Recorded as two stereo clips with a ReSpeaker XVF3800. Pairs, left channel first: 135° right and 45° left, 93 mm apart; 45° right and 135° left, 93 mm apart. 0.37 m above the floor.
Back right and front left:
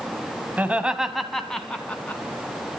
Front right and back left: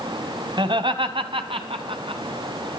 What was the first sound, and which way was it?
Laughter, 115° left.